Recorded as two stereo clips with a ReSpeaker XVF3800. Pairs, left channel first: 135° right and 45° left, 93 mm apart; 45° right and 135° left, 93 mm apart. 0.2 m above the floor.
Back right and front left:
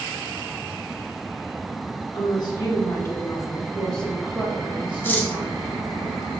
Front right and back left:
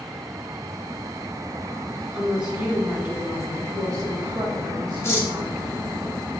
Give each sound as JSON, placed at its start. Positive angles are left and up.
{"t": 2.1, "sound": "a woman speaking", "azimuth_deg": -140, "distance_m": 1.5}
{"t": 5.0, "sound": "cutlery clinking", "azimuth_deg": -85, "distance_m": 0.7}